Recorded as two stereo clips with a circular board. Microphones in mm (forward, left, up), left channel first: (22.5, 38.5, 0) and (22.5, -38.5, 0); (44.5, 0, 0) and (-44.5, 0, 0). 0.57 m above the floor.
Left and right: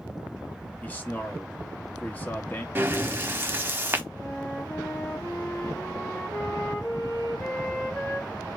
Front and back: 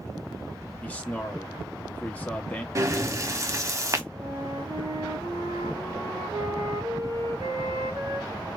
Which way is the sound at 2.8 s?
140° right.